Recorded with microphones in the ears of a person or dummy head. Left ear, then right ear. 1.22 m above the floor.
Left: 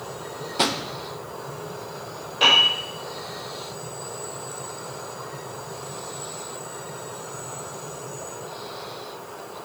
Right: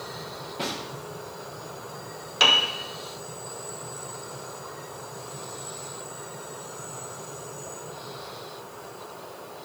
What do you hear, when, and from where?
0.6 s a drawer: 40° left (ahead or behind), 0.6 m
2.4 s a piano: 60° right (ahead or behind), 2 m